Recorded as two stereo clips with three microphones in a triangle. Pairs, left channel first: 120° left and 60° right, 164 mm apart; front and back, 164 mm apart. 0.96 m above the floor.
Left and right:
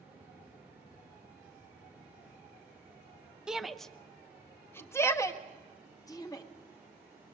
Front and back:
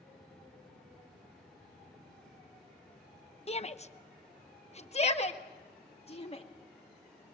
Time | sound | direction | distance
3.5 | a shout | 25° left | 0.8 m